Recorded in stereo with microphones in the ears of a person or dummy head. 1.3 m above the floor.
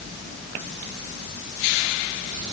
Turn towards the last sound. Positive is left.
No sound to turn to.